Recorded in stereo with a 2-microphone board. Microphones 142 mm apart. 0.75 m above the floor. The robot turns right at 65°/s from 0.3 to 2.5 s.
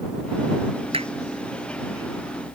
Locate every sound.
0.9 s hammering: 40° right (ahead or behind); by 1.1 s 50° right (ahead or behind)